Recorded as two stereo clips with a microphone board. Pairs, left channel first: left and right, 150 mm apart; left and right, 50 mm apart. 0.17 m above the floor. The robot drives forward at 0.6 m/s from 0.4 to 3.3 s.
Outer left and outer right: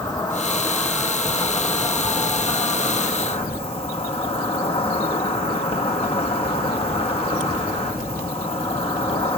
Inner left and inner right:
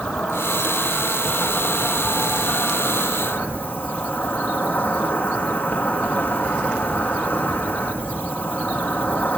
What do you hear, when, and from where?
0.0 s an insect: 20° left (ahead or behind), 3 m; by 9.4 s 40° left (ahead or behind), 1.7 m